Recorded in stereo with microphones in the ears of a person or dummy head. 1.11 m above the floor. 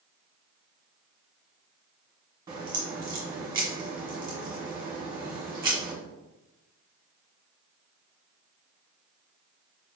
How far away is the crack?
About 1.2 m.